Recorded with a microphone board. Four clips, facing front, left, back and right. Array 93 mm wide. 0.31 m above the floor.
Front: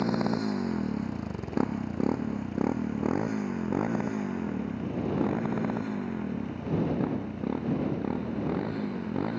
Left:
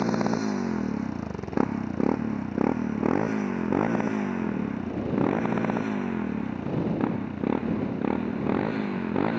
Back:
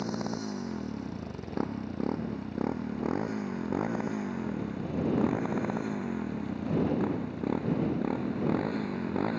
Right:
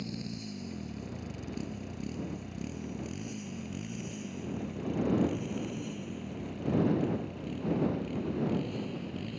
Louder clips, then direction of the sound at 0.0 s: Left 15 dB, front 6 dB; 70° left.